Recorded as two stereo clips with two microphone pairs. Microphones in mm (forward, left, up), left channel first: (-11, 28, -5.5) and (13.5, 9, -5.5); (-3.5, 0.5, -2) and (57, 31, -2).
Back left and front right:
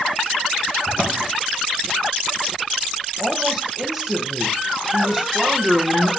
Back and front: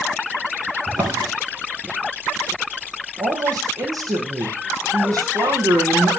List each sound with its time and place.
0.9 s a drawer: 45° left, 3.5 m
3.2 s a woman speaking: 45° left, 3.5 m